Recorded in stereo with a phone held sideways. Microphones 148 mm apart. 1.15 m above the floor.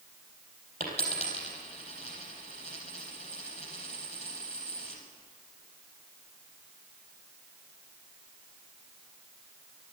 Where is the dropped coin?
50° left (ahead or behind), 4 m.